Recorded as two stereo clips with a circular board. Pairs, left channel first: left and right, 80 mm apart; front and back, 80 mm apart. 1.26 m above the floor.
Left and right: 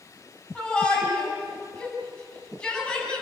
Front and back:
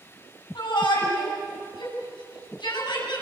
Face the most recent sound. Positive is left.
turn(degrees=10)